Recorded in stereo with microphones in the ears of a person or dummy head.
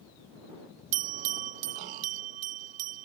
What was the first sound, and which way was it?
A bell, 45° right (ahead or behind).